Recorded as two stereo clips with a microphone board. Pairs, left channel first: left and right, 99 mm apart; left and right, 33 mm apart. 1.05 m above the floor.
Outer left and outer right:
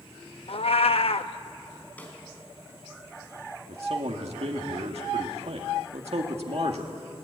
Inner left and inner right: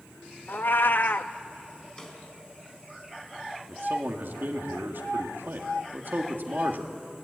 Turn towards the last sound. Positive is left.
turn(degrees=-80)